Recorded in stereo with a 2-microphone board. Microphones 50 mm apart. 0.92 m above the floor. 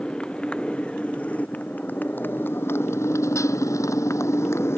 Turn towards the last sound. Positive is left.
turn(degrees=55)  # may be behind; listen again after turning